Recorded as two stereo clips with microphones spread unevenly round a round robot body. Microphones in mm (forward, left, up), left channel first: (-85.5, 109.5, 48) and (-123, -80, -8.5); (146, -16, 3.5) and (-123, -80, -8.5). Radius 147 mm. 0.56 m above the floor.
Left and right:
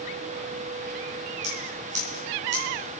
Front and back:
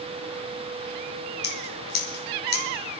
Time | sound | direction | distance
1.4 | scissors | 40° right | 3 m